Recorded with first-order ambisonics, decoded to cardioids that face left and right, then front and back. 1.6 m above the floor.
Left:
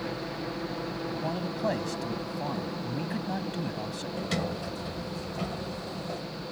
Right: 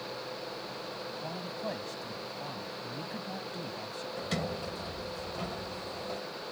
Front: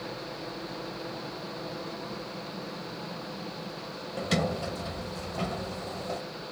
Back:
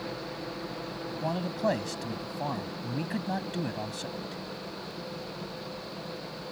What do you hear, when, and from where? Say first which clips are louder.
0.0 s a helicopter: left 4 dB, back 1 dB; 95° left
1.2 s a man speaking: left 9 dB, back 8 dB; 150° left
4.2 s a sliding door: left 3 dB, front 9 dB; 10° left